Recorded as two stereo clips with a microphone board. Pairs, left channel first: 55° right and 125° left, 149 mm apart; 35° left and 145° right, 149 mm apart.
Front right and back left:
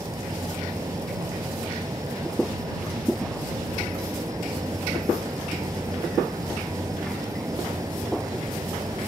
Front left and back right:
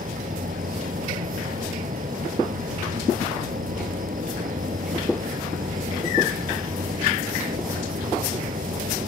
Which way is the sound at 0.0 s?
170° right.